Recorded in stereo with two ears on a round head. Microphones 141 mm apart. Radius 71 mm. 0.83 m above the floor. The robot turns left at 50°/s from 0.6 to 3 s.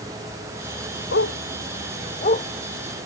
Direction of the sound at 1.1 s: 75° left (ahead or behind).